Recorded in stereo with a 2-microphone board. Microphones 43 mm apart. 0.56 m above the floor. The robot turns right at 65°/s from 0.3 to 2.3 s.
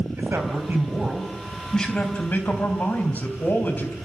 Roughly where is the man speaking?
Right.